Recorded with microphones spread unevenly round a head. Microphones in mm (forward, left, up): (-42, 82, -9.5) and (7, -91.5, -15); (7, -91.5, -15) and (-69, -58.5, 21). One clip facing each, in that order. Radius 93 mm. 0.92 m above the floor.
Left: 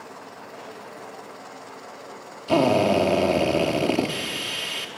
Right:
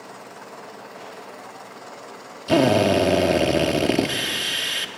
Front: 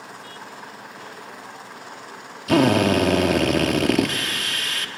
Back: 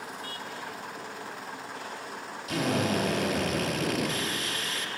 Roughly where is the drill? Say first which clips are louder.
Right 2 dB, front 11 dB; ahead.